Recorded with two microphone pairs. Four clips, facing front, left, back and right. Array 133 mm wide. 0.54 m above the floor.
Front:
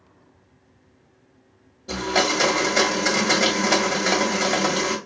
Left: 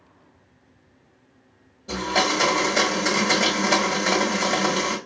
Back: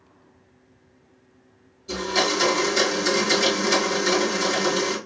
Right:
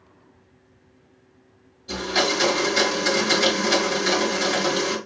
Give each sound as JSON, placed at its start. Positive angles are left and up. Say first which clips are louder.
{"t": 1.9, "sound": "a blender", "louder": "left 1 dB, front 2 dB", "azimuth_deg": 30, "distance_m": 1.4}